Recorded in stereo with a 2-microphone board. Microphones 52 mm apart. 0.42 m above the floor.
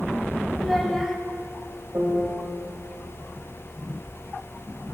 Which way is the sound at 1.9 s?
50° right (ahead or behind).